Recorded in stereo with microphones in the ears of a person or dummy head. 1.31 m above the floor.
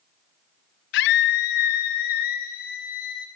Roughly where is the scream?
Left.